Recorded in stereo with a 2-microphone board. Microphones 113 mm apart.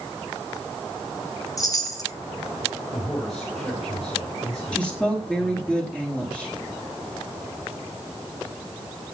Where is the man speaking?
15° left (ahead or behind), 6.5 m.